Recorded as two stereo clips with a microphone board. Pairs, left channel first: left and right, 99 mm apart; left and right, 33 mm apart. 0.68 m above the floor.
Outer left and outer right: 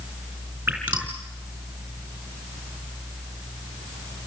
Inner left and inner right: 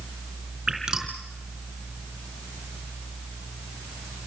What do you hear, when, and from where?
0.7 s dripping: 20° right (ahead or behind), 4.5 m